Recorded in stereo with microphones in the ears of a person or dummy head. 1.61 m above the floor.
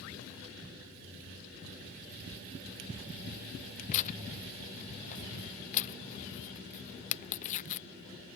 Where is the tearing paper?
35° left (ahead or behind).